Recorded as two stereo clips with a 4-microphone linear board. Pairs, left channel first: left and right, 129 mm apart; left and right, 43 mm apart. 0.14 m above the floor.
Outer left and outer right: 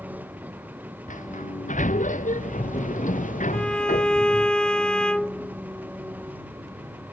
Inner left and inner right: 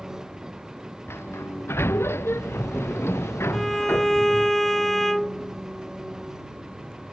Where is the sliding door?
80° left.